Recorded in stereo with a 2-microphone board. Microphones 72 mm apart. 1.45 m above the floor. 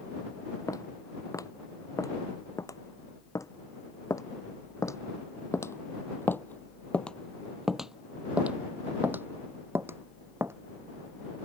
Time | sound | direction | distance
0.7 | footsteps | 55° left (ahead or behind) | ?